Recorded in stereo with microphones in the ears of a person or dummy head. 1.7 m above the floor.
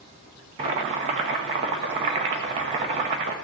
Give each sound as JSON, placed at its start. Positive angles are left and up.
{"t": 0.6, "sound": "boiling", "side_deg": -25, "distance_m": 0.8}